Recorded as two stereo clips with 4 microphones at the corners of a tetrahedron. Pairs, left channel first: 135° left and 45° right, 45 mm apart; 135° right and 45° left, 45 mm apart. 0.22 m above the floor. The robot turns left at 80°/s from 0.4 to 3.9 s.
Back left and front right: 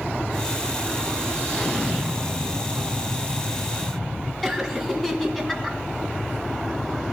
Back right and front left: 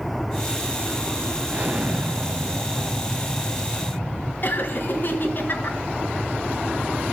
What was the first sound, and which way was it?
An explosion, 75° left.